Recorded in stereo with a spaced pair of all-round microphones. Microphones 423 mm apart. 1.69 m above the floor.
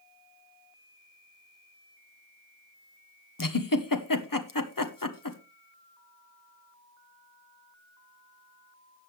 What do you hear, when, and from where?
3.4 s a giggle: 50° left (ahead or behind), 1.2 m